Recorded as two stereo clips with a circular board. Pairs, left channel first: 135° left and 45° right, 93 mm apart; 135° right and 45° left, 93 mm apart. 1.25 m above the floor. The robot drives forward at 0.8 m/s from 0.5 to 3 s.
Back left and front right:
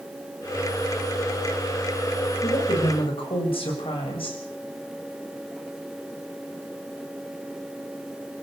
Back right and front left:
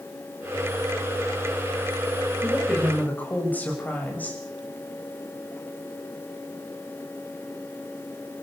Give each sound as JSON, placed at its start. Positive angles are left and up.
{"t": 2.4, "sound": "a woman speaking", "azimuth_deg": 150, "distance_m": 7.0}